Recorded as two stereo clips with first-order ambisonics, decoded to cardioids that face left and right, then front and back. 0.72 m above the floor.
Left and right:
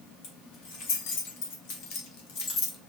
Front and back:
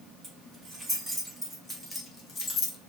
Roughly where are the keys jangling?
Left.